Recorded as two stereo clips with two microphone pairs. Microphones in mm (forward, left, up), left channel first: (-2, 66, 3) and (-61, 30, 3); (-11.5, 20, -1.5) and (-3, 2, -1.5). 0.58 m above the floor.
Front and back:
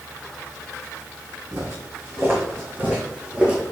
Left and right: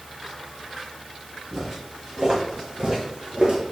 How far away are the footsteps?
About 2.5 m.